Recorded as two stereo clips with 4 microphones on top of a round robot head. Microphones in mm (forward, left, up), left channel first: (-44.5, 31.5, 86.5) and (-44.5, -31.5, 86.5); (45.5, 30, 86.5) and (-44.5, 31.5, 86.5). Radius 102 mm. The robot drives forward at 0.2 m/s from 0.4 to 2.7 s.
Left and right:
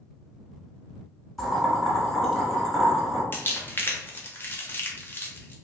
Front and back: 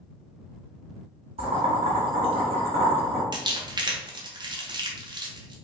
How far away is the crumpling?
About 1.0 m.